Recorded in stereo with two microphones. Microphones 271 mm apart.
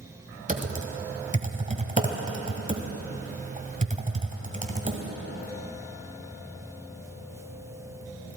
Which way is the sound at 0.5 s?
30° right (ahead or behind).